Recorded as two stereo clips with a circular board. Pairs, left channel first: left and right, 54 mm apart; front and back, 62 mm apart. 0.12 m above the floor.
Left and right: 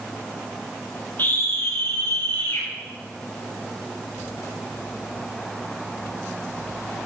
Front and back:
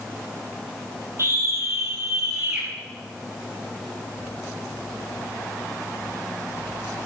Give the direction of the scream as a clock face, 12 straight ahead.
7 o'clock.